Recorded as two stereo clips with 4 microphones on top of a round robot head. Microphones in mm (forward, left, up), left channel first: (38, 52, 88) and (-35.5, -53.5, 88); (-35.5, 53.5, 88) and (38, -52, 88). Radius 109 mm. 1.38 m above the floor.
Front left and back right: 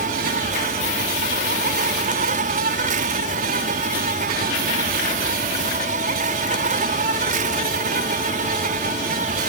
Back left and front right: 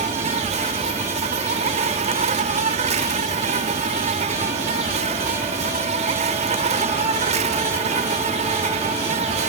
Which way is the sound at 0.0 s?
95° right.